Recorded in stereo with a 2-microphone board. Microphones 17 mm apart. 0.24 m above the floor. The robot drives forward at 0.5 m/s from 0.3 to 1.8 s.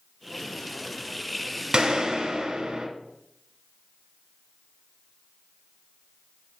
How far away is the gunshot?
About 0.7 m.